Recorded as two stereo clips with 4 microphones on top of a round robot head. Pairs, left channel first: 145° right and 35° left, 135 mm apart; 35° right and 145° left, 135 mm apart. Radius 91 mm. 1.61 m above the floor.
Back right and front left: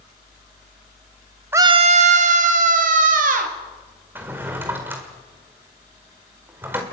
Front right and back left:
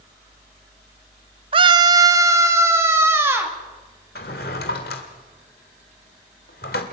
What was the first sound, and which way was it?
A scream, 105° left.